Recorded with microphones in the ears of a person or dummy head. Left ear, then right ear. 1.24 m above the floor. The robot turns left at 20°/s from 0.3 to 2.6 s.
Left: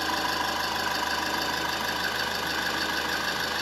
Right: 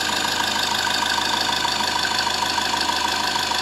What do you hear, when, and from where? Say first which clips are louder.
0.0 s an engine running: right 5 dB; 100° right, 3.5 m; by 3.6 s 145° right, 3.5 m